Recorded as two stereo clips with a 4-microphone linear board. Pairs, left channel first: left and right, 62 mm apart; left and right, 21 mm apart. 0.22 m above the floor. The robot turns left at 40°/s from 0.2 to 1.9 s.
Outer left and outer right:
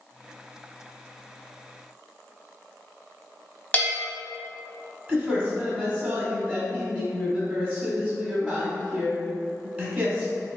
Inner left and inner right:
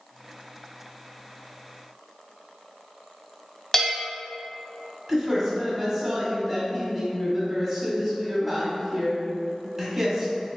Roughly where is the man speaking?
Right.